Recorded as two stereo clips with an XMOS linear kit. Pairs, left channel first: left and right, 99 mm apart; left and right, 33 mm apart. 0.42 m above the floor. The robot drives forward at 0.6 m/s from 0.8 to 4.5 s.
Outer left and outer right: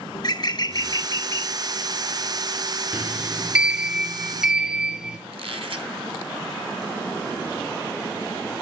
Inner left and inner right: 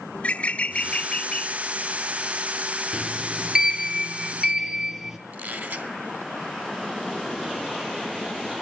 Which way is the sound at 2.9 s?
15° right (ahead or behind).